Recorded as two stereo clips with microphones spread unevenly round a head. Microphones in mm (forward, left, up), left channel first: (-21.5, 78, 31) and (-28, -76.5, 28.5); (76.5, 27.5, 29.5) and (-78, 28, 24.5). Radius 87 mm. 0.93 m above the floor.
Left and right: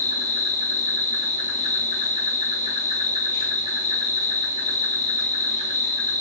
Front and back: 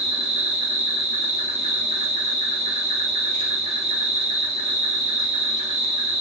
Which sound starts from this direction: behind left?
An insect, at 0.0 s.